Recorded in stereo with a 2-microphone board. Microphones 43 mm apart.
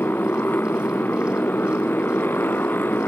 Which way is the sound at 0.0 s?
55° left (ahead or behind).